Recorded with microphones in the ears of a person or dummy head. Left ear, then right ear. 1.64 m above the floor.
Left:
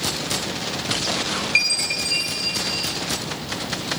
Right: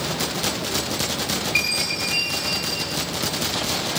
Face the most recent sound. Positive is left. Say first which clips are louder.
# left 3 dB
turn(degrees=45)  # may be behind; listen again after turning